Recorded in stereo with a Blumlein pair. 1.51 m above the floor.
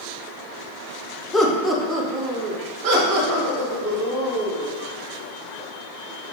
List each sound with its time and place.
1.3 s laughter: 10° left, 0.6 m; by 4.8 s 60° right, 2 m